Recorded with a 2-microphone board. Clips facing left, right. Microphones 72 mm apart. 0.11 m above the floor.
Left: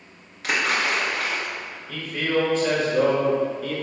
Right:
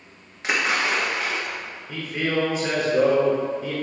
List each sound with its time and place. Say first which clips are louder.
0.4 s a splash: even; 25° right (ahead or behind), 1.3 m
1.9 s a man speaking: left 1 dB; 15° right (ahead or behind), 1.2 m